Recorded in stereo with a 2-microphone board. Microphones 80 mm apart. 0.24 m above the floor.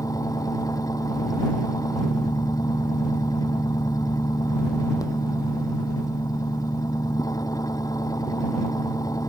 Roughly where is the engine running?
Left.